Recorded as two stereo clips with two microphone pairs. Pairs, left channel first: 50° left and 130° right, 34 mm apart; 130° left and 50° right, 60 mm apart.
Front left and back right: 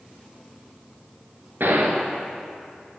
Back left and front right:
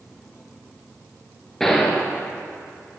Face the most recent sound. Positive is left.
turn(degrees=-145)